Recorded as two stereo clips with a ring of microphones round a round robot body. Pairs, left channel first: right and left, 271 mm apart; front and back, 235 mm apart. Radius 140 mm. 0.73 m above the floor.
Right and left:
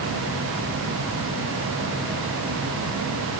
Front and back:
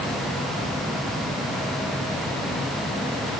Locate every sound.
Only background noise.